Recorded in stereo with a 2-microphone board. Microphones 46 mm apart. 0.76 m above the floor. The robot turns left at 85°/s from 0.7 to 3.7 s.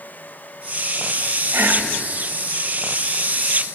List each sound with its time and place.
1.5 s whispering: 100° right, 2 m; by 1.9 s 130° right, 2 m